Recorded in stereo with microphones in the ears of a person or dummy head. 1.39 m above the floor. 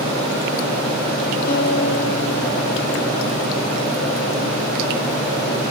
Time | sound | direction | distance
1.5 | a guitar | 65° left (ahead or behind) | 2 m